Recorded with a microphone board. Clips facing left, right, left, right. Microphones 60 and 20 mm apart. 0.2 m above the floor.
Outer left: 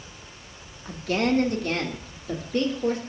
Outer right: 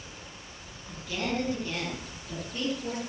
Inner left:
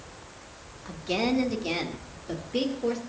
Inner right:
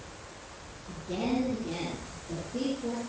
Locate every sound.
0.8 s a woman speaking: 70° left (ahead or behind), 3.5 m; by 3.0 s 75° left (ahead or behind), 4.5 m